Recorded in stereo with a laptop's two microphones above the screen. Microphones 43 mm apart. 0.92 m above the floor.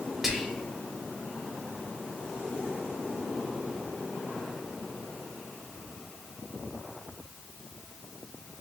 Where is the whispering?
Centre (ahead or behind), 0.6 m.